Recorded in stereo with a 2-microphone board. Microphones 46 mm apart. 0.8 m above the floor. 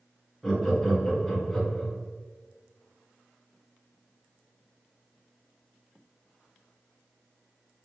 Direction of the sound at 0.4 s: 5° left (ahead or behind).